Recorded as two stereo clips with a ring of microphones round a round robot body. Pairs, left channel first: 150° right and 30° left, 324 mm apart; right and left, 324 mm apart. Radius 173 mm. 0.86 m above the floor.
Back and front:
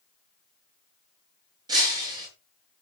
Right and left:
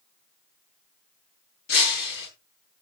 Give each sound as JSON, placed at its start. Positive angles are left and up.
{"t": 1.7, "sound": "breaking glass", "azimuth_deg": -50, "distance_m": 8.5}